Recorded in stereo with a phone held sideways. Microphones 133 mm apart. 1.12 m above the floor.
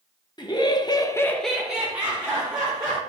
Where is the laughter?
35° left (ahead or behind), 0.9 m; by 3.0 s 20° right (ahead or behind), 1.8 m.